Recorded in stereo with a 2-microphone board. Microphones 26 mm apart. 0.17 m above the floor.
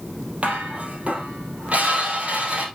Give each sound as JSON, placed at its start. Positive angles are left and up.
{"t": 0.4, "sound": "dishes clattering", "side_deg": -55, "distance_m": 3.0}